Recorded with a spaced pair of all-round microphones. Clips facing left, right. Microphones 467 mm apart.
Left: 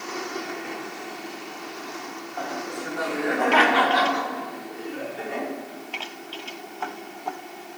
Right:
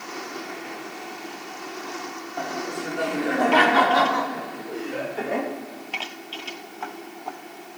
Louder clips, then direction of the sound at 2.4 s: Right 2 dB; 40° right (ahead or behind).